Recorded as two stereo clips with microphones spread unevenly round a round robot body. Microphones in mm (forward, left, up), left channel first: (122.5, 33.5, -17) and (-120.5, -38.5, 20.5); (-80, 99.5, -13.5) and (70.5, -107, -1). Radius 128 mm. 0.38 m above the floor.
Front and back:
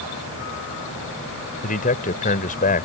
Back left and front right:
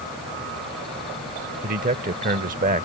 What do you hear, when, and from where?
1.6 s a man speaking: 10° right